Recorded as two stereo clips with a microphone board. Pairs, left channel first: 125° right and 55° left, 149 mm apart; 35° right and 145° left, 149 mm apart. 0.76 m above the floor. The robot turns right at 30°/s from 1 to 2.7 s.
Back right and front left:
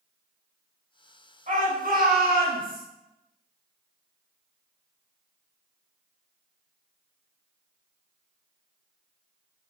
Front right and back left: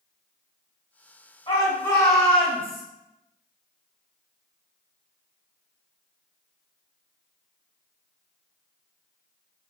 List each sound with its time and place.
1.5 s a shout: 20° left, 4 m; by 2.8 s 55° left, 4 m